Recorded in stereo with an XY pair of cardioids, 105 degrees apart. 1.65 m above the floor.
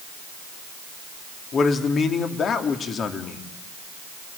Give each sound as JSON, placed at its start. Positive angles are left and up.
{"t": 1.5, "sound": "a man speaking", "azimuth_deg": 55, "distance_m": 3.0}